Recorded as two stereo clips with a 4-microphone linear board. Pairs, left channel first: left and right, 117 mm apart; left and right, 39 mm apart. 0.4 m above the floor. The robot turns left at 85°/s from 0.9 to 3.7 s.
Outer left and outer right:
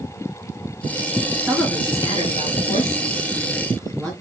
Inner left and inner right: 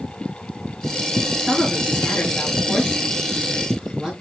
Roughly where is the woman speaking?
Behind.